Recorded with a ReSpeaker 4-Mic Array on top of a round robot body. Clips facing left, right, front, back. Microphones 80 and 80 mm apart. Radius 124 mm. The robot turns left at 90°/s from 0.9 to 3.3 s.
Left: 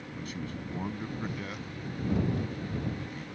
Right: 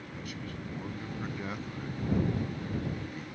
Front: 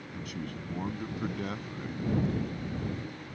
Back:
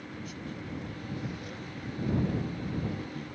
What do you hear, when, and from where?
0.1 s a man speaking: 30° left; by 3.2 s straight behind